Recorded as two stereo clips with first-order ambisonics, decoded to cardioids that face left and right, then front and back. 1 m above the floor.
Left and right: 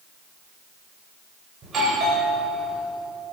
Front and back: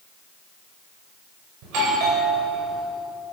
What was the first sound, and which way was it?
A doorbell, 155° right.